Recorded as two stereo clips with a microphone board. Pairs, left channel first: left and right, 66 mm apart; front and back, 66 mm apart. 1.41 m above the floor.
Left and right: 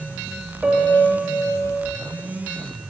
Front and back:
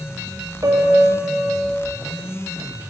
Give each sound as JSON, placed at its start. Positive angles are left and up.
{"t": 0.6, "sound": "a piano", "azimuth_deg": -160, "distance_m": 2.5}